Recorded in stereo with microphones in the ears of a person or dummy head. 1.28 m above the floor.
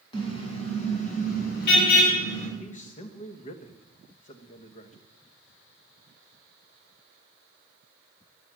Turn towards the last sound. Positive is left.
turn(degrees=35)  # may be behind; listen again after turning